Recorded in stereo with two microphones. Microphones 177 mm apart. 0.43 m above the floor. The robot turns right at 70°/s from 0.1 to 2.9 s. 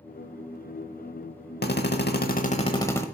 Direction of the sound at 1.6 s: 75° left.